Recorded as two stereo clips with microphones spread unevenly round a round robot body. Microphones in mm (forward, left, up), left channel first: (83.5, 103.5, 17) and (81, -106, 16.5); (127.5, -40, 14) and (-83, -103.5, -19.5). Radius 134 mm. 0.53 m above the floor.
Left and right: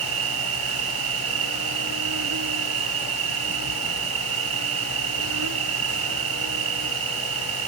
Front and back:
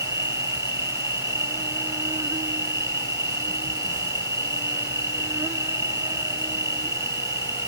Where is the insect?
85° right.